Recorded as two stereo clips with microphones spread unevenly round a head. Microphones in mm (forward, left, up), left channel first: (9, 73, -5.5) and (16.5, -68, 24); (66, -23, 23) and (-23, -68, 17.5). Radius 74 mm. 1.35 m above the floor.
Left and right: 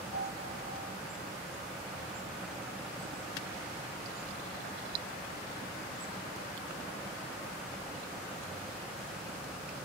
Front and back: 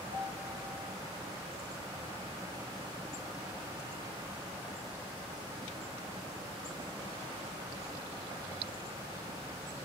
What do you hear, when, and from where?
0.1 s a piano: 155° left, 3.5 m